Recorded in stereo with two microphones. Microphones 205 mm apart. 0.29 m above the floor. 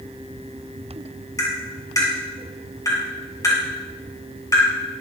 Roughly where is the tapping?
Centre.